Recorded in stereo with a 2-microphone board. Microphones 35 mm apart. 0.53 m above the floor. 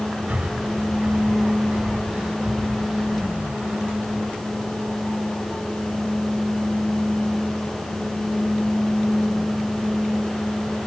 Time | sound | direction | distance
0.3 | breathing | 45° right (ahead or behind) | 2.0 m